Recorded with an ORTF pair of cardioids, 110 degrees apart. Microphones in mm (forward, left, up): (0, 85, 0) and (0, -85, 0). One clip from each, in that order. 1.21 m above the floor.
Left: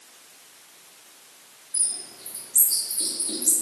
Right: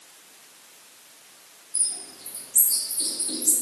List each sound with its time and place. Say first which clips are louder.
1.7 s a bird: even; 10° left, 1.4 m